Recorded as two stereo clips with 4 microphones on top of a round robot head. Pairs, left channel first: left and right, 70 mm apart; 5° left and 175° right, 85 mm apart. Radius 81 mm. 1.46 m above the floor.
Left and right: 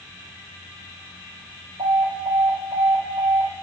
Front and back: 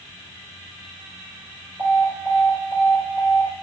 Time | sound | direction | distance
1.8 | an alarm | 115° right | 4 m